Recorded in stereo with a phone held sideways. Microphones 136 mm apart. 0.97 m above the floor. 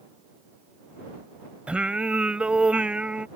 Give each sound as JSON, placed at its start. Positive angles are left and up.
{"t": 1.7, "sound": "singing", "side_deg": -10}